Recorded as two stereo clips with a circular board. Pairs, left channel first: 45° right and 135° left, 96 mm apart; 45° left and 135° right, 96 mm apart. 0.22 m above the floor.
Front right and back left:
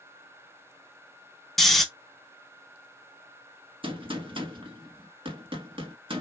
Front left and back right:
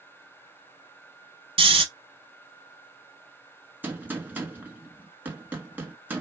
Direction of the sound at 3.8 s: 155° left.